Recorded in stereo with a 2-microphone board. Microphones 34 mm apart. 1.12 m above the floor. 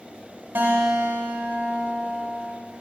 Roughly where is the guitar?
Right.